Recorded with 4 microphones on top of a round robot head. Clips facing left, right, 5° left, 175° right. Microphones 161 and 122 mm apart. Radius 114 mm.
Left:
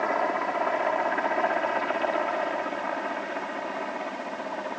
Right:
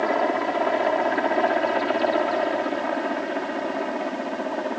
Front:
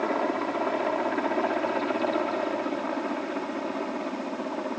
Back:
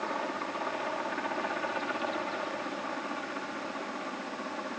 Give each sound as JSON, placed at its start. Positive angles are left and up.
{"t": 0.0, "sound": "a helicopter", "azimuth_deg": -35}